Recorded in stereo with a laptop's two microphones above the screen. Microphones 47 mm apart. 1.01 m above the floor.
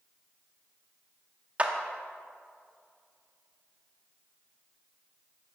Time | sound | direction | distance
1.6 | a clap | 25° right (ahead or behind) | 1.8 m